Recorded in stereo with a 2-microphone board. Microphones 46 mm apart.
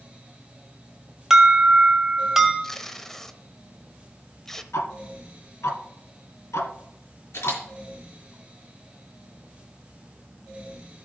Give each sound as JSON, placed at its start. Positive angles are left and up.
{"t": 1.3, "sound": "an alarm", "side_deg": -10, "distance_m": 1.9}
{"t": 2.6, "sound": "tape being pulled", "side_deg": 10, "distance_m": 0.8}
{"t": 4.7, "sound": "ticking", "side_deg": 80, "distance_m": 1.4}
{"t": 7.3, "sound": "a camera shutter", "side_deg": 65, "distance_m": 4.5}